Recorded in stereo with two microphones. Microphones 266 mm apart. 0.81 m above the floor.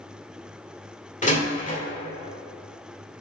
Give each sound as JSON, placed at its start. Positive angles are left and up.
{"t": 1.2, "sound": "a door slam", "side_deg": 25, "distance_m": 1.6}